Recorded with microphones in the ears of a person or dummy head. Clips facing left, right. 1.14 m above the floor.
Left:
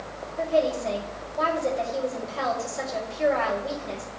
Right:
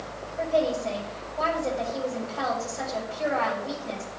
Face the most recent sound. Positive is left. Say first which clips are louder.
# left 1 dB
turn(degrees=65)  # may be behind; listen again after turning